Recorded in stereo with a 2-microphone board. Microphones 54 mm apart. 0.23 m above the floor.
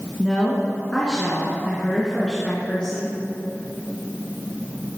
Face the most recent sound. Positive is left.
turn(degrees=15)  # may be behind; listen again after turning